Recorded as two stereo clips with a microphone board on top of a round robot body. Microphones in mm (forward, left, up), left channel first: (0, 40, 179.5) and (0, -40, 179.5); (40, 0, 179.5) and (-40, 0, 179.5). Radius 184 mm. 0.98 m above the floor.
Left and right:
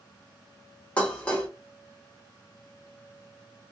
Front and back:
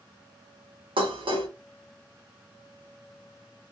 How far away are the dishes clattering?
About 0.9 m.